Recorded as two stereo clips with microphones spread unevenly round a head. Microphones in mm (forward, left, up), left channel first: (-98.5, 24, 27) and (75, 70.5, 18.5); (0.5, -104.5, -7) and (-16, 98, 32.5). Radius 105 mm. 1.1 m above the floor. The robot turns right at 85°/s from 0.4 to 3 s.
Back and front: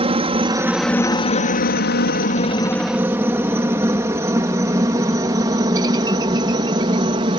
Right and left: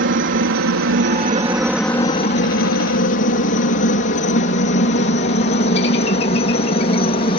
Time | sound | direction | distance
0.0 | a helicopter | 65° left | ?